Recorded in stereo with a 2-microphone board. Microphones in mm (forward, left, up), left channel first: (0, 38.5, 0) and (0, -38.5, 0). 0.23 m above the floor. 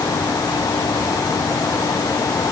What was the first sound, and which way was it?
Only background noise.